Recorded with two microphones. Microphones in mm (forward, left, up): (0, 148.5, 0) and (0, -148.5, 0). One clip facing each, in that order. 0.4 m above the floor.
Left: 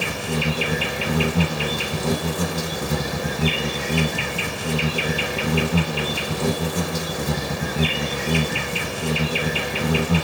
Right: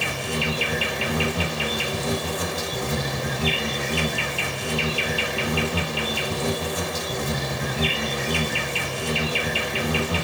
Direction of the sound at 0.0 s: 50° left (ahead or behind).